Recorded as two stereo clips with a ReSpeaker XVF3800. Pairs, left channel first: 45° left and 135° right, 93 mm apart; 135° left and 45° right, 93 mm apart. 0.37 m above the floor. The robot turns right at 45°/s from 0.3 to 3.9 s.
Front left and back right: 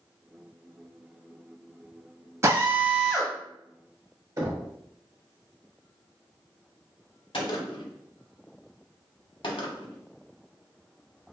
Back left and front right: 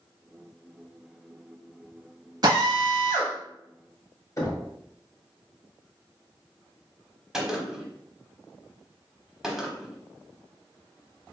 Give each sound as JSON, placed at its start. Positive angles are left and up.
{"t": 2.4, "sound": "a drill", "azimuth_deg": -80, "distance_m": 0.8}
{"t": 4.4, "sound": "knocking", "azimuth_deg": 180, "distance_m": 1.1}
{"t": 7.3, "sound": "a gunshot", "azimuth_deg": 40, "distance_m": 0.7}